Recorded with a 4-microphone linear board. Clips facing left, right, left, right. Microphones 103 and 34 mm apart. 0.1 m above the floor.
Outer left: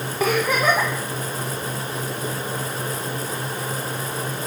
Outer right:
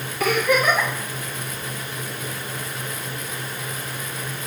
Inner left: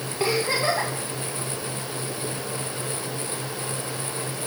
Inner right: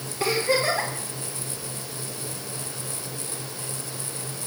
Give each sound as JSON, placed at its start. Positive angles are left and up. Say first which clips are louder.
{"t": 0.2, "sound": "a giggle", "louder": "outer right 1 dB, even", "side_deg": 30, "distance_m": 3.0}